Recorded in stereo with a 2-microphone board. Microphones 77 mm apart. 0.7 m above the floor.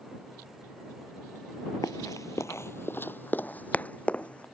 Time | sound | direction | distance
1.8 | running footsteps | 50° left (ahead or behind) | ?